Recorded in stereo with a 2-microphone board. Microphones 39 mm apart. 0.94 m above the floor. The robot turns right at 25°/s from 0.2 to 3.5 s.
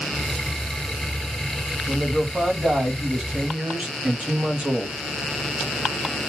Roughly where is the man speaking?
Behind right.